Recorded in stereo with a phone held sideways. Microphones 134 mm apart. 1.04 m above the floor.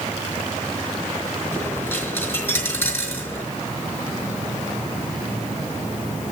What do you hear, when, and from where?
1.5 s a dropped coin: 15° left (ahead or behind), 5 m